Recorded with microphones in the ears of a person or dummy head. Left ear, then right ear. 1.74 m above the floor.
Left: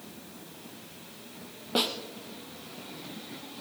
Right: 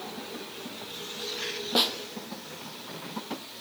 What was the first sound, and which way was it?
A snare drum, 10° right (ahead or behind).